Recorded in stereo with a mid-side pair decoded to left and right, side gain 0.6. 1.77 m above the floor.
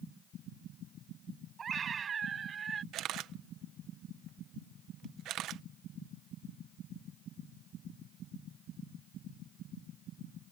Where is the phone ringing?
No phone ringing in this recording.